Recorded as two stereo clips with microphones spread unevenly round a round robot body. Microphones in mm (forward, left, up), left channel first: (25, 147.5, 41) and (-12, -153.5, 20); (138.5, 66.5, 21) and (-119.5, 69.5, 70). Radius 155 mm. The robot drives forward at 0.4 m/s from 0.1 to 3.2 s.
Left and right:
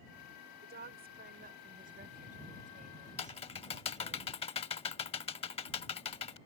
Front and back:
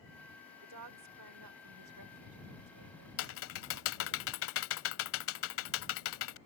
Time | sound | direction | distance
0.6 | a woman speaking | 150° right | ?
3.2 | typing on a keyboard | 20° left | ?